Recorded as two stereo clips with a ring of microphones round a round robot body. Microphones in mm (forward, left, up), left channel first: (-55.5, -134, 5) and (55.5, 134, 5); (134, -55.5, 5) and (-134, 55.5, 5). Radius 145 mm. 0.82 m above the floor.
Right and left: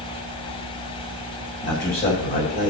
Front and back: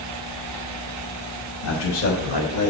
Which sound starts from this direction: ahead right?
A man speaking, at 1.6 s.